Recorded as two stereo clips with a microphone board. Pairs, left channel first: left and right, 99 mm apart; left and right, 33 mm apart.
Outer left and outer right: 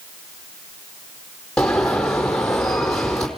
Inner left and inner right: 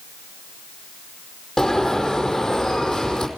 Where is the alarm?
5° left (ahead or behind), 4.5 m.